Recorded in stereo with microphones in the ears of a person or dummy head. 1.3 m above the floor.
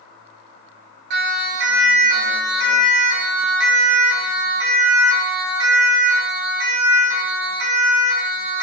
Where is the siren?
65° right (ahead or behind), 6.5 m; by 8.6 s 85° right, 11 m.